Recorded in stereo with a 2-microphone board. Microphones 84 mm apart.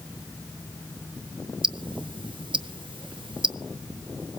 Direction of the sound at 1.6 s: 70° right (ahead or behind).